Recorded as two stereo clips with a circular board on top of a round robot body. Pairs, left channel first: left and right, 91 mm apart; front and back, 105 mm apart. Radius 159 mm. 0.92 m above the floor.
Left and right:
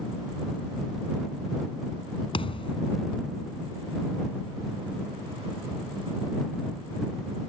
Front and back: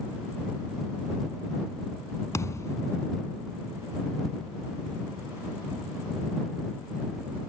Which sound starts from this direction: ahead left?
A thud, at 2.3 s.